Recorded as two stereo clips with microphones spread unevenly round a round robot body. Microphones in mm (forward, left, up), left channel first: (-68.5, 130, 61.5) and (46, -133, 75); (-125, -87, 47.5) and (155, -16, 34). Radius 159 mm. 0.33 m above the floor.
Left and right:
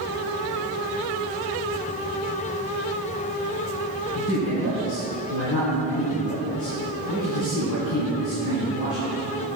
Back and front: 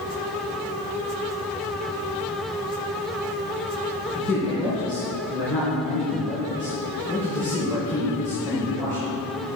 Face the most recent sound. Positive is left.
turn(degrees=110)